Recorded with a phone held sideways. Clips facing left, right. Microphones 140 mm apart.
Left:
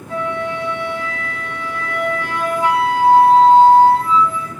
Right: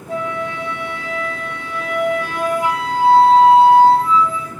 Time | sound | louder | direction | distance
0.1 | a flute | left 1 dB | 75° right (ahead or behind) | 1.8 m